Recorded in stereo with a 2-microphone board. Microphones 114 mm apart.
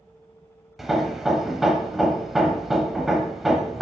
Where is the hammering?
Centre (ahead or behind), 0.7 m.